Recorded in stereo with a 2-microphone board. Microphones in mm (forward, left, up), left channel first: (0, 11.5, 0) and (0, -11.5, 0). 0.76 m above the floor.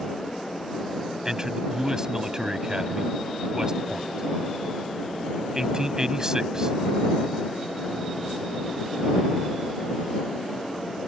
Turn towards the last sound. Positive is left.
turn(degrees=-30)  # may be behind; listen again after turning